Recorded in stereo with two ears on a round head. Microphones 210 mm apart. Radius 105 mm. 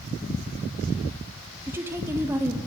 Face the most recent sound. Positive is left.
turn(degrees=-10)  # may be behind; listen again after turning